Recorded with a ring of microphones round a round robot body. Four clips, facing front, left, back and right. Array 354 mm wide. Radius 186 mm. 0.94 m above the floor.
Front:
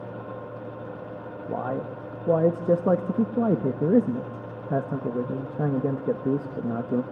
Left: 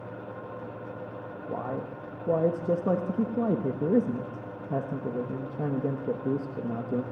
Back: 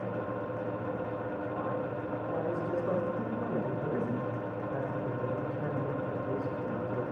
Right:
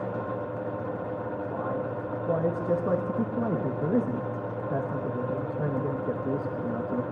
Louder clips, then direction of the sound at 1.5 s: Left 1 dB, front 8 dB; 10° left.